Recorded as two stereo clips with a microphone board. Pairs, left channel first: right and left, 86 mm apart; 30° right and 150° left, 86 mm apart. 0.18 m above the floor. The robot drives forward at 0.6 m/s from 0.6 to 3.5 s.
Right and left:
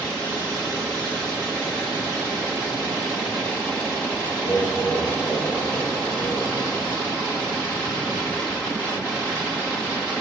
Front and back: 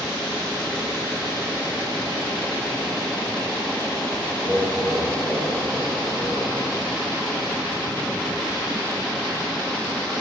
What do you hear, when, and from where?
4.4 s laughter: 115° right, 2.5 m